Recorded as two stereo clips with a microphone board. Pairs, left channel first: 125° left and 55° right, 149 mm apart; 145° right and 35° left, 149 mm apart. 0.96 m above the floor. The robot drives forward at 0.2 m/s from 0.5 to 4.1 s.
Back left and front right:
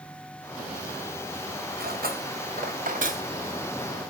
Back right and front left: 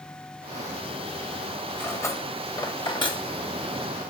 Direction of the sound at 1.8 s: 70° right.